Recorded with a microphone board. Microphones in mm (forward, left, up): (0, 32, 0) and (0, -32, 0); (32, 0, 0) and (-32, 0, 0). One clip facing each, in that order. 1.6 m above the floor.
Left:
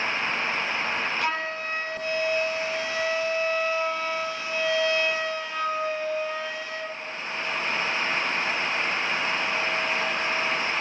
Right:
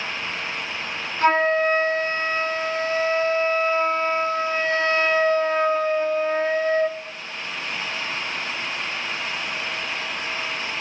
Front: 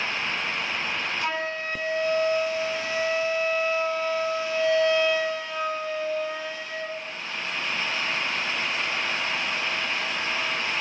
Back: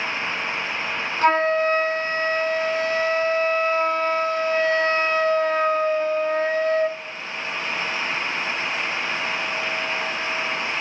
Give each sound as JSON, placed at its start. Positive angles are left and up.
{"t": 1.2, "sound": "a flute", "azimuth_deg": -140, "distance_m": 0.6}